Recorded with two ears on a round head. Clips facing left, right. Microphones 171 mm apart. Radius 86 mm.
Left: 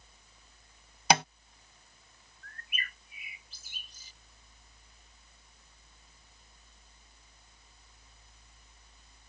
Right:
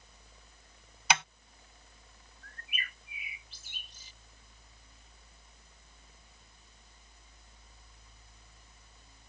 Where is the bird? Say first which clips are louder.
Left 1 dB; 40° left (ahead or behind).